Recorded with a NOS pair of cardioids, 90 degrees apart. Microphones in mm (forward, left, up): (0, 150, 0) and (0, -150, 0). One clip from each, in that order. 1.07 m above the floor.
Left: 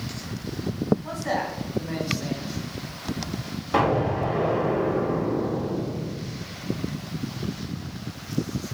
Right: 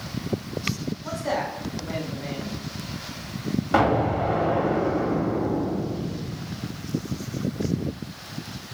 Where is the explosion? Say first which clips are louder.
Right 1 dB; 20° right, 1.5 m.